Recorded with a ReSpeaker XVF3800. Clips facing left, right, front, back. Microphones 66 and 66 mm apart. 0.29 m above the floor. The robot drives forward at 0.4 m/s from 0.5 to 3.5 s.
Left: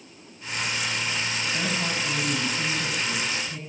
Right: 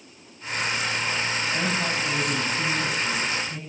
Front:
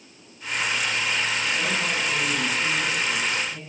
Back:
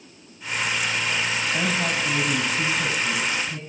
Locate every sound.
1.5 s a woman speaking: 160° right, 2 m; by 3.6 s 165° right, 3 m